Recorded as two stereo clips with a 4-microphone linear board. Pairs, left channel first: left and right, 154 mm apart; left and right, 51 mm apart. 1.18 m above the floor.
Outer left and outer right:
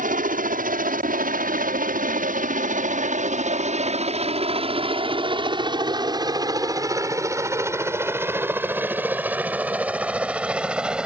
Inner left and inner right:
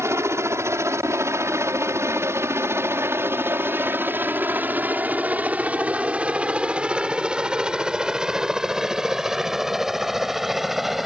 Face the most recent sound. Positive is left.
turn(degrees=-5)  # may be behind; listen again after turning